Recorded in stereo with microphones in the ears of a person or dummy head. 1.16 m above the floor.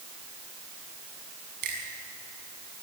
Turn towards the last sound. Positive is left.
turn(degrees=-50)  # may be behind; listen again after turning